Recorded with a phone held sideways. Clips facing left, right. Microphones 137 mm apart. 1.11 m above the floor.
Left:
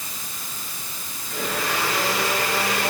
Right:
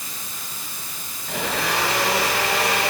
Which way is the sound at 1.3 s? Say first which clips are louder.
Right 2 dB; 80° right.